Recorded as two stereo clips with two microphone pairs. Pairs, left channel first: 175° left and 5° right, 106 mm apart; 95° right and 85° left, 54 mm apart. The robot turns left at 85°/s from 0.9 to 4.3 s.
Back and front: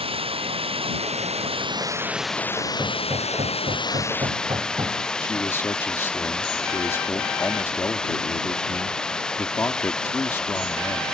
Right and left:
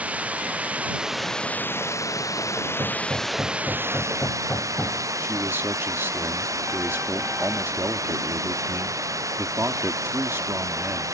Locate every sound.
0.0 s running water: 25° left; by 11.1 s 95° left
2.8 s hammering: 75° left; by 5.0 s 50° right
5.2 s a man speaking: 115° left